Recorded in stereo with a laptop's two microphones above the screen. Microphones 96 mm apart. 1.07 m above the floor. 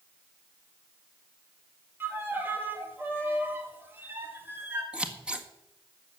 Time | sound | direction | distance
2.0 | a violin | 20° right (ahead or behind) | 1.6 m
4.9 | scissors | 10° right (ahead or behind) | 1.7 m